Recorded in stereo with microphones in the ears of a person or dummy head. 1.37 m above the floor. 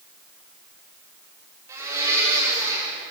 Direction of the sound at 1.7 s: 20° right (ahead or behind).